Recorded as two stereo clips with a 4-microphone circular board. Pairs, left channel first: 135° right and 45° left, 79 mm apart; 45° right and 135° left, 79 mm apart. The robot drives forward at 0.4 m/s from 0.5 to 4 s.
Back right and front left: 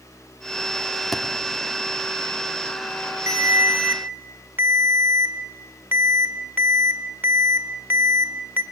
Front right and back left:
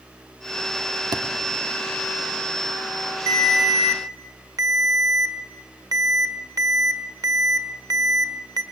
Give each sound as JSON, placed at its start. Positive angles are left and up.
{"t": 1.1, "sound": "a thud", "azimuth_deg": 135, "distance_m": 1.5}
{"t": 3.3, "sound": "a ringtone", "azimuth_deg": 95, "distance_m": 1.6}